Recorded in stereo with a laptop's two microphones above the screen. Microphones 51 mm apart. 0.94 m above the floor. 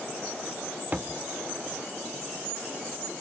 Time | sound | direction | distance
0.9 | a thud | 35° right (ahead or behind) | 0.6 m